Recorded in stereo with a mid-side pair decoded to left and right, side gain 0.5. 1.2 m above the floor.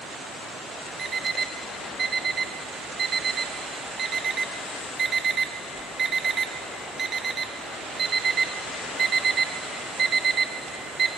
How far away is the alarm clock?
About 1.1 m.